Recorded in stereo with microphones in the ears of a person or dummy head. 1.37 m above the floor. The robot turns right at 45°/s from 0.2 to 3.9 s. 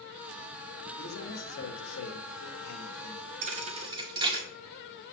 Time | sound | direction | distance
1.0 | a man speaking | 50° left | 2 m
3.4 | a thud | 45° right (ahead or behind) | 1.5 m